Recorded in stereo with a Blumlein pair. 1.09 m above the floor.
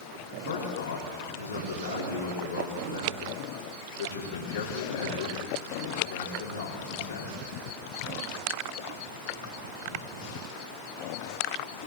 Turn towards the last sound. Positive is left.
turn(degrees=65)